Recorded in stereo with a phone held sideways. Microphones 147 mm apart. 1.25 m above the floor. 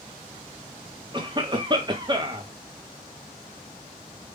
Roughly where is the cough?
Right.